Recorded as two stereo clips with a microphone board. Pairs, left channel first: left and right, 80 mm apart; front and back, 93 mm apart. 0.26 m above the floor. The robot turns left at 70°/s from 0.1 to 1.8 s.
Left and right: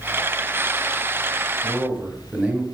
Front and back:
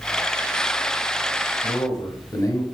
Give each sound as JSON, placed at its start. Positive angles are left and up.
{"t": 1.6, "sound": "a man speaking", "azimuth_deg": -10, "distance_m": 1.5}